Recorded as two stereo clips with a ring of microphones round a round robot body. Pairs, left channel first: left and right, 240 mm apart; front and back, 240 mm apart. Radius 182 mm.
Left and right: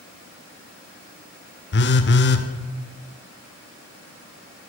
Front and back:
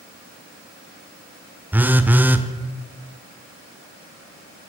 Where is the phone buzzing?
100° left, 0.7 m.